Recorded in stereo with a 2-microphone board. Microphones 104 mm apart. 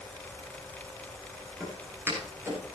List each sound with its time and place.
1.6 s footsteps: 20° right (ahead or behind), 8.5 m